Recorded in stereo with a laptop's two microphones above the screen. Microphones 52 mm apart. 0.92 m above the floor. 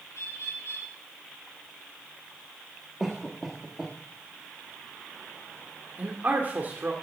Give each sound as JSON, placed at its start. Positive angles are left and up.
{"t": 0.1, "sound": "a bird", "side_deg": 75, "distance_m": 3.0}
{"t": 3.0, "sound": "a cough", "side_deg": -10, "distance_m": 1.4}
{"t": 6.0, "sound": "a man speaking", "side_deg": -40, "distance_m": 2.0}